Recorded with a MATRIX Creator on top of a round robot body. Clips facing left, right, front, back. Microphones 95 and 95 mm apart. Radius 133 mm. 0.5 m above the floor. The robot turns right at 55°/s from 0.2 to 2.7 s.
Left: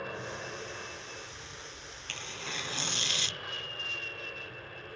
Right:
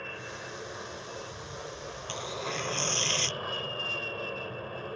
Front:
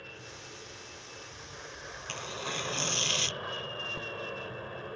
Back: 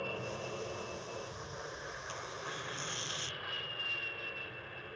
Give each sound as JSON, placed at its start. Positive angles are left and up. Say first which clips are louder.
{"t": 0.0, "sound": "an aircraft", "louder": "left 2 dB, back 8 dB", "azimuth_deg": 170}
{"t": 2.1, "sound": "tearing paper", "louder": "right 7 dB, front 7 dB", "azimuth_deg": -25}